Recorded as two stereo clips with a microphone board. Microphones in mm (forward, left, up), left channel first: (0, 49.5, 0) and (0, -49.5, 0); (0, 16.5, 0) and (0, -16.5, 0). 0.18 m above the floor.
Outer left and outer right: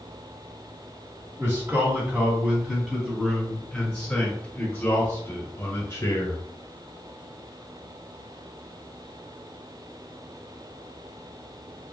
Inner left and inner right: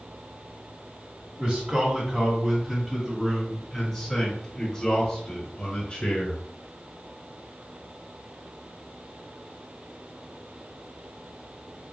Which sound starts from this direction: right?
A man speaking, at 1.4 s.